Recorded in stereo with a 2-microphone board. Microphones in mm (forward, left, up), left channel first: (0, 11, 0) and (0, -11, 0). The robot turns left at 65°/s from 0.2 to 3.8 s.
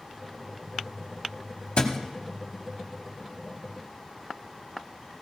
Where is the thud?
60° left (ahead or behind), 1.1 m.